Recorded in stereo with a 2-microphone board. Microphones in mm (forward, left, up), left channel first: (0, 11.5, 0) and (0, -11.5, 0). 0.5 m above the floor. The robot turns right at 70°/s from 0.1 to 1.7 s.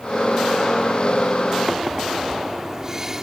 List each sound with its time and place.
1.7 s a microwave: 20° right (ahead or behind)